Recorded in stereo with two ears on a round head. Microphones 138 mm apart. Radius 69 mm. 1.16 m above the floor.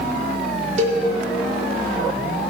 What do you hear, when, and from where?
0.8 s a cowbell: 45° right (ahead or behind), 1.5 m